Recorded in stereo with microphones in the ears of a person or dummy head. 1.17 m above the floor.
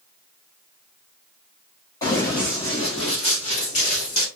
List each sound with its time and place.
2.0 s running footsteps: 15° left (ahead or behind), 2.5 m; by 4.3 s 50° left (ahead or behind), 2 m